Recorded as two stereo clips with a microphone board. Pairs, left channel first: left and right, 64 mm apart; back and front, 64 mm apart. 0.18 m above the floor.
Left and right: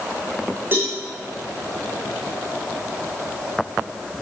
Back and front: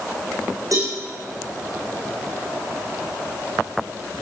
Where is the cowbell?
30° right, 7 m.